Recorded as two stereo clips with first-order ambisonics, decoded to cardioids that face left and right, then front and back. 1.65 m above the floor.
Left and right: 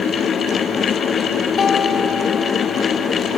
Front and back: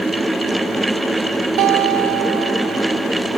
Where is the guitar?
155° left, 3 m.